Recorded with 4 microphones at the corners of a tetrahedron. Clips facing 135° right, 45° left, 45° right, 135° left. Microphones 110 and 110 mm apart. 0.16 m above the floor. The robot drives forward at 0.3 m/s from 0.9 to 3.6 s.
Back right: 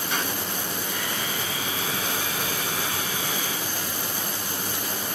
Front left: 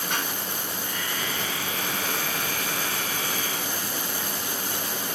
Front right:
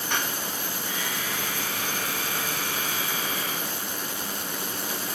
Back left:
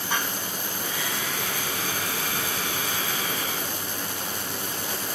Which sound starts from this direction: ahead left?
Dishes clattering, at 0.1 s.